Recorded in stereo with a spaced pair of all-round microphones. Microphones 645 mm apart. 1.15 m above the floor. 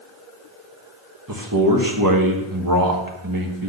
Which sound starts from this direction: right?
A man speaking, at 1.3 s.